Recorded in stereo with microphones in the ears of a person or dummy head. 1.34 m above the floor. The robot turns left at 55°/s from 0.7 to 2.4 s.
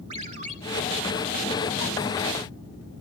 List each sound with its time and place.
0.1 s a ringtone: 30° right (ahead or behind), 1.2 m